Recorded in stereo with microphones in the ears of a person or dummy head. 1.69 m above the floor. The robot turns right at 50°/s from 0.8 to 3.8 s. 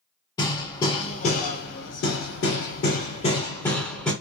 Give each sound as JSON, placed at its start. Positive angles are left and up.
{"t": 0.4, "sound": "hammering", "azimuth_deg": 30, "distance_m": 0.7}